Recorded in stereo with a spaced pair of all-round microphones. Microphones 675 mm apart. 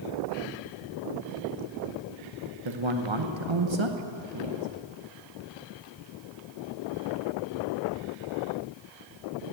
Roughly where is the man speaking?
Right.